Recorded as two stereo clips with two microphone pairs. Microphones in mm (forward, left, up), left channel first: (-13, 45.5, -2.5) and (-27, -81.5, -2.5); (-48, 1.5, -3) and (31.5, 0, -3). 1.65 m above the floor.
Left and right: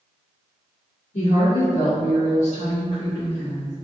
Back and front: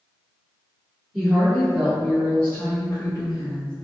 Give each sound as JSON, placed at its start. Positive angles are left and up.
{"t": 1.1, "sound": "a woman speaking", "azimuth_deg": 75, "distance_m": 1.1}